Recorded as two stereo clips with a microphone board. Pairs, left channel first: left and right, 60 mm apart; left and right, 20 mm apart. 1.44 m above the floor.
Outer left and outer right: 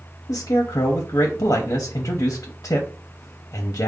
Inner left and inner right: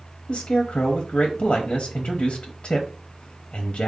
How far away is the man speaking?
About 0.6 m.